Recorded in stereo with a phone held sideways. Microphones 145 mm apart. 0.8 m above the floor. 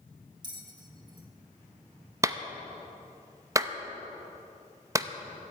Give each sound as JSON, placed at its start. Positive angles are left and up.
{"t": 0.4, "sound": "a bell", "side_deg": -30, "distance_m": 1.3}
{"t": 2.2, "sound": "a clap", "side_deg": -20, "distance_m": 0.6}